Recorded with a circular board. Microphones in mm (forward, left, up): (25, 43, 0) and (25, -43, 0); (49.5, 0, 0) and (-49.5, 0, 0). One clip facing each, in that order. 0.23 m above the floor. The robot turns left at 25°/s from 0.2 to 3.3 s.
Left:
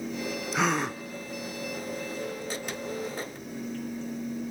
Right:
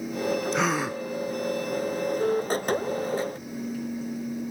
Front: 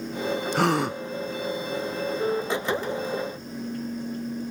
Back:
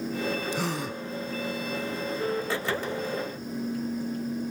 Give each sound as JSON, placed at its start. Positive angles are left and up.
{"t": 0.5, "sound": "a gasp", "azimuth_deg": 0, "distance_m": 0.6}